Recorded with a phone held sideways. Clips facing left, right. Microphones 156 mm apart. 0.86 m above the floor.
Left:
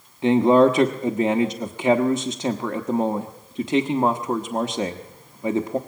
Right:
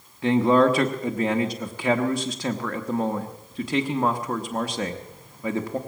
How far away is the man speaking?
About 1.0 m.